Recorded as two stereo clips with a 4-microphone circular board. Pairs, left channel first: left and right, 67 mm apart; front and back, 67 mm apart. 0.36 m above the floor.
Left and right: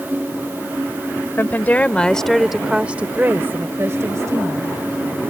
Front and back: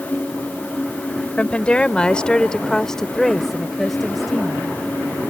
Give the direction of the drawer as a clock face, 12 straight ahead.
No drawer in this recording.